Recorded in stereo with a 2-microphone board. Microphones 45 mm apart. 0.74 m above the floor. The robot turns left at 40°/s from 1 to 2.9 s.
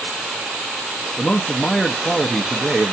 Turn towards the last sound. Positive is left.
turn(degrees=-5)  # may be behind; listen again after turning